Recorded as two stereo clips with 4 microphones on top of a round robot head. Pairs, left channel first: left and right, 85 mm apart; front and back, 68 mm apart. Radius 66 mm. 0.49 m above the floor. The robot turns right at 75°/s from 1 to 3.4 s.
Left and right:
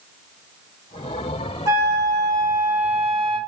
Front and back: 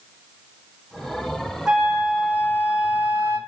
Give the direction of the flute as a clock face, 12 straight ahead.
3 o'clock.